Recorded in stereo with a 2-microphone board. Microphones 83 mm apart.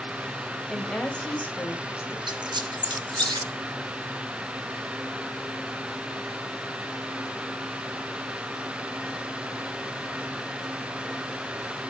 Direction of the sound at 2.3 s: 65° right (ahead or behind).